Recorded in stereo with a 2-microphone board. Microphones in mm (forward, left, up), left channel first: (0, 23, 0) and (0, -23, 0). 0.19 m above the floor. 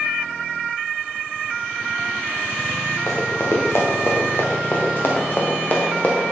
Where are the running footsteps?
80° left, 2.5 m; by 6.2 s 30° left (ahead or behind), 2.5 m.